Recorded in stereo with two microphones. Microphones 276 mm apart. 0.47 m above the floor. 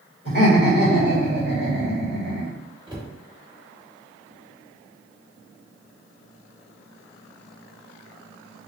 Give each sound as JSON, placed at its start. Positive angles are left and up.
{"t": 0.2, "sound": "laughter", "side_deg": -40, "distance_m": 2.0}
{"t": 2.9, "sound": "a cupboard door", "side_deg": -20, "distance_m": 1.8}